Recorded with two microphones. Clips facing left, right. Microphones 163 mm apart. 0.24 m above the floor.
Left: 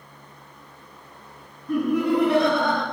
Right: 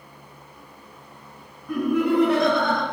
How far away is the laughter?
About 1.9 m.